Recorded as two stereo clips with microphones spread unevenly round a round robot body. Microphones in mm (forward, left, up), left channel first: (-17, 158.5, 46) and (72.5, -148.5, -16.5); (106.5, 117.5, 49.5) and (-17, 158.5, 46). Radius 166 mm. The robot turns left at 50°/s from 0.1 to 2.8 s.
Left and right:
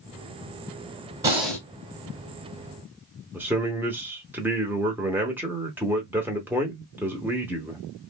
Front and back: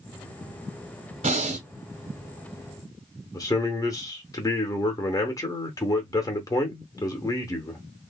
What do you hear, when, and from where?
1.2 s breathing: 150° right, 0.6 m; by 1.7 s 170° right, 0.6 m
3.3 s a man speaking: 25° right, 0.8 m